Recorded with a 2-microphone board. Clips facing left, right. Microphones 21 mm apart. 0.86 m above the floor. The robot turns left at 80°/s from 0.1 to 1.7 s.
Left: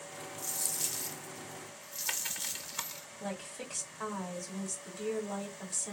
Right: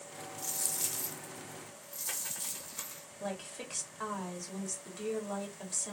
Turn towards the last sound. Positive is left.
turn(degrees=-20)  # may be behind; listen again after turning